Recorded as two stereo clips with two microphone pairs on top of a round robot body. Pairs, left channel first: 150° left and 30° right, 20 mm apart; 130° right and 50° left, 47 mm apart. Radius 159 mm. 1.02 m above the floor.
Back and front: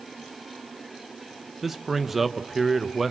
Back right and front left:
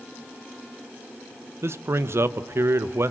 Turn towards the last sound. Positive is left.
turn(degrees=50)